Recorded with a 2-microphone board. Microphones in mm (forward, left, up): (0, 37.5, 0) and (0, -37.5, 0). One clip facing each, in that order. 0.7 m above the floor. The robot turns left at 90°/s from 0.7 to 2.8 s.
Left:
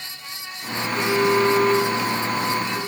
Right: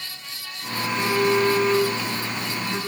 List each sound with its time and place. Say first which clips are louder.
0.8 s a phone buzzing: left 1 dB; 130° left, 4 m; by 2.8 s 50° right, 4 m